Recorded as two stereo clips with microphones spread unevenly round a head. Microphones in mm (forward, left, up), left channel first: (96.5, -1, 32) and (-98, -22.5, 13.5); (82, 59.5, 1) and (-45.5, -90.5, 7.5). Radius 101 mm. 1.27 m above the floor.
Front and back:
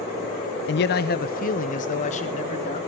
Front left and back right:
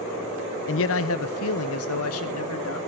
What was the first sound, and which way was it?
A man speaking, 35° left.